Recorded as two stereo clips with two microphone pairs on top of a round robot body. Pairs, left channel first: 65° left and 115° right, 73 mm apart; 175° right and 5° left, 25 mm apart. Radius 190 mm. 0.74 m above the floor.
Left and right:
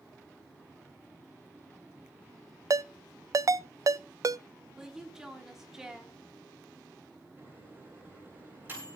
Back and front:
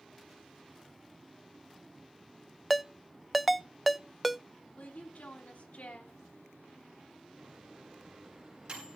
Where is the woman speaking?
160° left, 3 m.